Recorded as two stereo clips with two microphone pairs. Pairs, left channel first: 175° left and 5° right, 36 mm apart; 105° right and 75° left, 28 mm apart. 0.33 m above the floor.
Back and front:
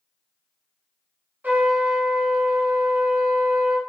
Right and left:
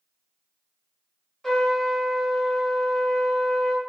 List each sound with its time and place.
1.4 s a trumpet: 25° right, 3 m